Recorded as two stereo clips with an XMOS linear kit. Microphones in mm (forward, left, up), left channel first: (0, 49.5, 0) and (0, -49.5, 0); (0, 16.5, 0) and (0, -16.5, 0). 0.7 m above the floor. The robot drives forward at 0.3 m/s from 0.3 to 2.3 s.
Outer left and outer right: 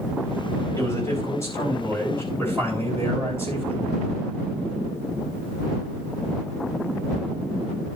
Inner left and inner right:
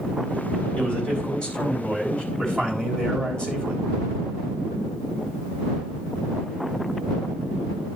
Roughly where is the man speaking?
Left.